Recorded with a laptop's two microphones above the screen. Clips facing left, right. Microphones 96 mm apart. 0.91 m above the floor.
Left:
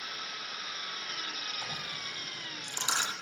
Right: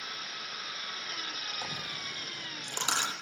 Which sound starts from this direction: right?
A dropped coin, at 1.6 s.